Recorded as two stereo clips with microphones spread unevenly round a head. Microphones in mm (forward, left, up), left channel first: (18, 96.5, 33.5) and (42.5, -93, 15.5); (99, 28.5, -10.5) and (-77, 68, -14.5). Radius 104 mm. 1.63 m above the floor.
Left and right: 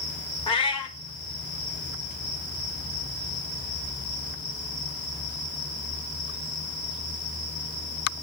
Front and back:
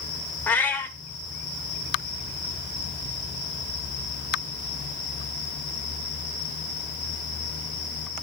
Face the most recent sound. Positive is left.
turn(degrees=60)